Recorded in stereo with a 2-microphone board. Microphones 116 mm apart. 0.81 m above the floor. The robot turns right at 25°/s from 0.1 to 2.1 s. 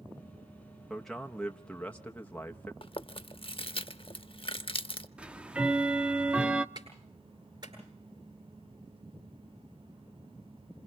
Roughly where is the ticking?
Centre.